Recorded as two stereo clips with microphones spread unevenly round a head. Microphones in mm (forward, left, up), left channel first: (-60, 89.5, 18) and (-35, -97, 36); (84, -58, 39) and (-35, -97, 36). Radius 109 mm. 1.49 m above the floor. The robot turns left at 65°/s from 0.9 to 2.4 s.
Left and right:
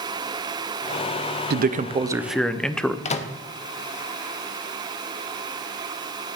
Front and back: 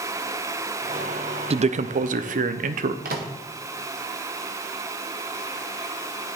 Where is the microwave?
155° left, 0.6 m.